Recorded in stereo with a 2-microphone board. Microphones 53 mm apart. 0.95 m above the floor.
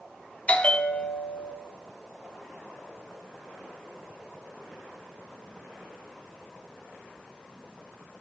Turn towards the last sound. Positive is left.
turn(degrees=25)  # may be behind; listen again after turning